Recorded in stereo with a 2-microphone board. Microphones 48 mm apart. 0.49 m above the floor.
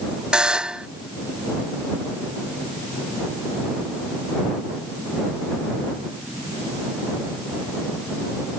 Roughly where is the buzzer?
Centre.